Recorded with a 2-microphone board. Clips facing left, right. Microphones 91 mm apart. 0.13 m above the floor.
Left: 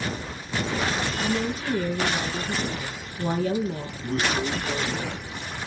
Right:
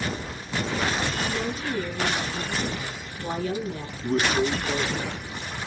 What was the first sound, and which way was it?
A woman speaking, 45° left (ahead or behind).